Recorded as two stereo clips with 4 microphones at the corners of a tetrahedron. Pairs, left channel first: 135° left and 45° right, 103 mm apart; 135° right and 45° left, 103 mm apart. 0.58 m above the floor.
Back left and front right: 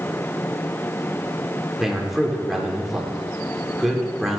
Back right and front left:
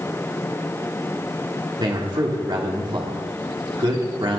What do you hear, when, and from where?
1.8 s a man speaking: 40° left, 1.7 m